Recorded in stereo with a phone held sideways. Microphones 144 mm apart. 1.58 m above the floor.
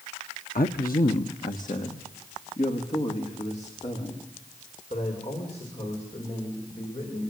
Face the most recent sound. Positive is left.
turn(degrees=45)  # may be behind; listen again after turning